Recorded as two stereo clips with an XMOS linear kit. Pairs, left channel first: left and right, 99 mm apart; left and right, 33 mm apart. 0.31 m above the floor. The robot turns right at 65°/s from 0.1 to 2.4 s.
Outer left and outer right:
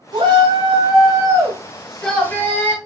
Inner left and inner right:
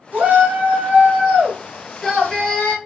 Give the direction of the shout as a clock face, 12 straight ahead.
4 o'clock.